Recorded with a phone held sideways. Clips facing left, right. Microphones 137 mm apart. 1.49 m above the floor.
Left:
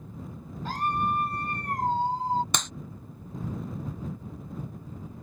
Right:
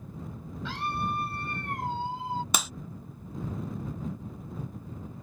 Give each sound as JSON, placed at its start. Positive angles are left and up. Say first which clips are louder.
{"t": 0.7, "sound": "a scream", "louder": "left 4 dB", "side_deg": 45}
{"t": 2.5, "sound": "a clap", "louder": "right 1 dB", "side_deg": -5}